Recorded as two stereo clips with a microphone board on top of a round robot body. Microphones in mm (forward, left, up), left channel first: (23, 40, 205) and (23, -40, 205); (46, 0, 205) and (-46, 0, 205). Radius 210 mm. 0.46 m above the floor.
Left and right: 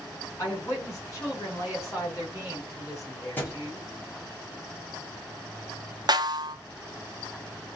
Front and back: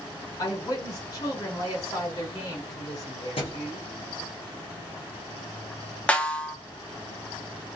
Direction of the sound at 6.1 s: 75° right.